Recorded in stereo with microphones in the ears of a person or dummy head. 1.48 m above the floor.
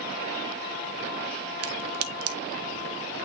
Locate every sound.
1.6 s a crack: 85° right, 1.1 m